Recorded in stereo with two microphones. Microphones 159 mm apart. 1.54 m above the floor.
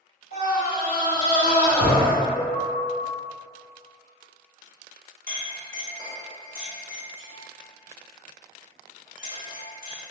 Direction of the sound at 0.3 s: 75° left (ahead or behind).